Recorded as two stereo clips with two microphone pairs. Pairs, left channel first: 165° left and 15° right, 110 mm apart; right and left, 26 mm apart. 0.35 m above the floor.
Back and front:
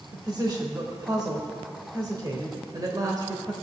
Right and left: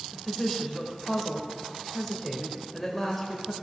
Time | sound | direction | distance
0.1 | a woman speaking | 15° right | 1.2 m